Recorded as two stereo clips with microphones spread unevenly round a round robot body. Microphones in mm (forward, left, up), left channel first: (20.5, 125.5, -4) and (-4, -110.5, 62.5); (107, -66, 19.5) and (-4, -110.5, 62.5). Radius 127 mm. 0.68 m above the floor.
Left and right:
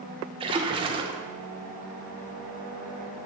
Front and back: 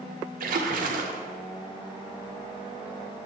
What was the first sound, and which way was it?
A splash, 165° right.